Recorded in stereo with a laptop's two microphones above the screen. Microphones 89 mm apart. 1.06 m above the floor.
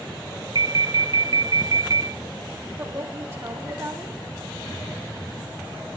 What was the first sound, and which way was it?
An alarm, 50° right (ahead or behind).